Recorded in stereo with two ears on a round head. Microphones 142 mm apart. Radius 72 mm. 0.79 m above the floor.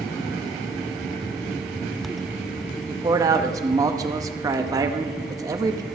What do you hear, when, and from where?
2.9 s a man speaking: 25° right (ahead or behind), 0.7 m